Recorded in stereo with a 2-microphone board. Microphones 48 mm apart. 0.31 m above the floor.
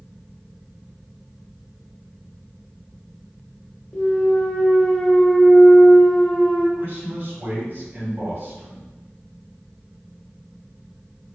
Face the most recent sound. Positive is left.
turn(degrees=-45)  # may be behind; listen again after turning